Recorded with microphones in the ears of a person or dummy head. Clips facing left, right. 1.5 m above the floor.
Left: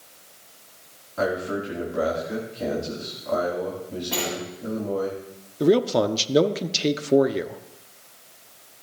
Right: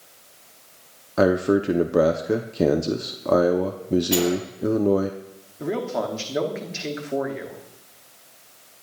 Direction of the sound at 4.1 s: 45° right (ahead or behind).